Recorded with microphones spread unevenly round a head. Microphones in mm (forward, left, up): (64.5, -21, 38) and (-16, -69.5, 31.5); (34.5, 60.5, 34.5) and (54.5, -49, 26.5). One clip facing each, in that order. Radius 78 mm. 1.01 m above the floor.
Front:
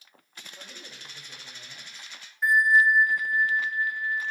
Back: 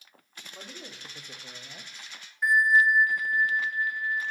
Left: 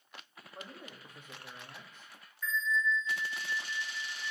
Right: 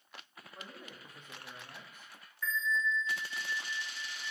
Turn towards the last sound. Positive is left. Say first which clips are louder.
# front 1 dB, left 1 dB
turn(degrees=-60)